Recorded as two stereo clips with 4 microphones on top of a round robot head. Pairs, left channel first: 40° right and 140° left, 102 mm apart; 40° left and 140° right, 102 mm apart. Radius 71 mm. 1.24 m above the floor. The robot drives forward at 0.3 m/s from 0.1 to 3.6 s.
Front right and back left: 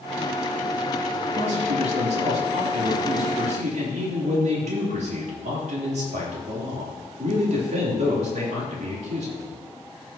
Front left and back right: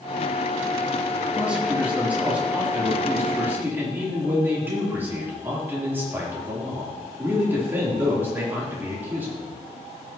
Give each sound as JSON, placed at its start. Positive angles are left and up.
{"t": 1.3, "sound": "a man speaking", "azimuth_deg": 140, "distance_m": 2.5}